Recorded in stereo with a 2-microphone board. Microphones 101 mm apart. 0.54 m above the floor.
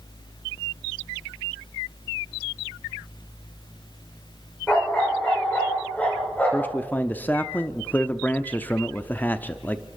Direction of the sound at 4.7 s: 10° left (ahead or behind).